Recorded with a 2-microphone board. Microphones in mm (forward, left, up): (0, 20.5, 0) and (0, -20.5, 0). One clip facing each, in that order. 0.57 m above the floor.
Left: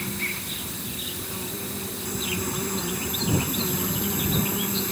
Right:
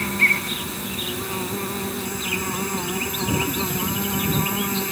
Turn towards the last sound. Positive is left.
turn(degrees=-65)  # may be behind; listen again after turning